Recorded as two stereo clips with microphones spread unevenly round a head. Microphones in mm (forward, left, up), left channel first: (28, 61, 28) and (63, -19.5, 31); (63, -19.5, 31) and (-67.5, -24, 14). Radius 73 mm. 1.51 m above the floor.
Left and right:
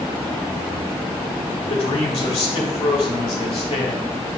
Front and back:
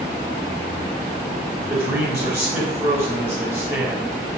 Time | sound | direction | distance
1.7 | a man speaking | 110° left | 2.5 m